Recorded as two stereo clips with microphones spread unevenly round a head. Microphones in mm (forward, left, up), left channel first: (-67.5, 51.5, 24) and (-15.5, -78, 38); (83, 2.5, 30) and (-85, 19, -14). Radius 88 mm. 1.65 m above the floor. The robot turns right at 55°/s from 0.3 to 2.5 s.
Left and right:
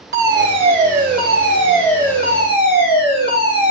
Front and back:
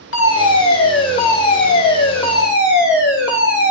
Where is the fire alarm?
30° right, 6.5 m; by 3.7 s 90° left, 6.5 m.